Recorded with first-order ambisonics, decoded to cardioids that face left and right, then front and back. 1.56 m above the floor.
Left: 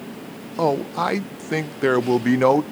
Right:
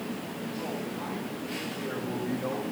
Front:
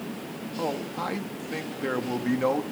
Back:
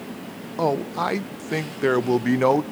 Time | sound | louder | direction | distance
0.6 | a man speaking | left 18 dB, back 8 dB | 120° left | 0.5 m